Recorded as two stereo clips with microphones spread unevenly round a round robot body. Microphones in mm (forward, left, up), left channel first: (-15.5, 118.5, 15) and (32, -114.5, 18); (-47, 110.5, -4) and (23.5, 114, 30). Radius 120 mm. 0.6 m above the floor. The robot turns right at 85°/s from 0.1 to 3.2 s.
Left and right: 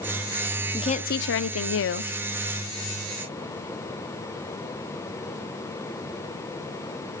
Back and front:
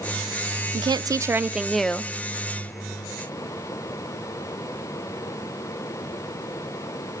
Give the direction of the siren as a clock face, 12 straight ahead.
I don't hear a siren.